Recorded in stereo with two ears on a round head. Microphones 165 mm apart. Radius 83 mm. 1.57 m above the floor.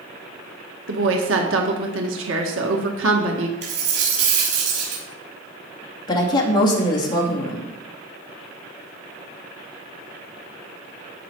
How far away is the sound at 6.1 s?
About 3 m.